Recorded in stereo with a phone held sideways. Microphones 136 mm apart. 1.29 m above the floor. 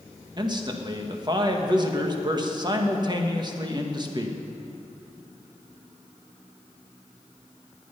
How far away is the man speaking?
About 1.4 m.